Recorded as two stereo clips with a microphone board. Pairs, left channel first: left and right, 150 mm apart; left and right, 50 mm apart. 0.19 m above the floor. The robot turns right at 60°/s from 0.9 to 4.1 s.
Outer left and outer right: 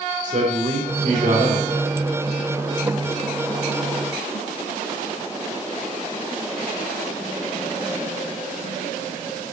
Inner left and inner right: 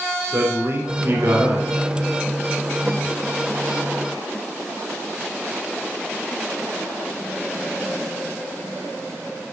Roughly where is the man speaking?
Right.